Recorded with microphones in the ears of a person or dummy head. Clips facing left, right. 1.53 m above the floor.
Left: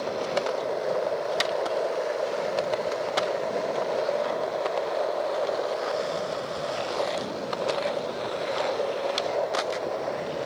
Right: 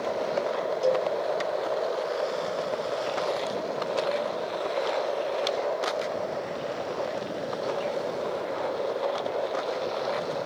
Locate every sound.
0.8 s a cowbell: 45° right (ahead or behind), 1.4 m